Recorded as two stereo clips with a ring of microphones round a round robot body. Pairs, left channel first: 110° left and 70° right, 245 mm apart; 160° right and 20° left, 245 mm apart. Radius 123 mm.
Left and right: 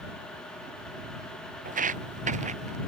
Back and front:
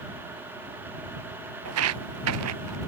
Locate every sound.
1.6 s footsteps: 10° right; by 2.8 s 5° right